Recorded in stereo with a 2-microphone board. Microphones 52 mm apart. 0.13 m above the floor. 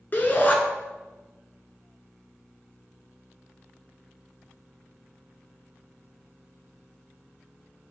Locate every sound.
0.1 s a shout: 40° left (ahead or behind), 1.4 m